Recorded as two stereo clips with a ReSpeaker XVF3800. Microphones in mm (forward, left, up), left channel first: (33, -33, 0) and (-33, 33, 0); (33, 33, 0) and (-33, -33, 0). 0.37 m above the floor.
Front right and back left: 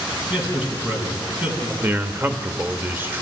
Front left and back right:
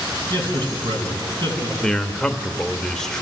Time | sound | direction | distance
0.3 | a man speaking | 150° right | 3.5 m
1.8 | a man speaking | 120° left | 0.9 m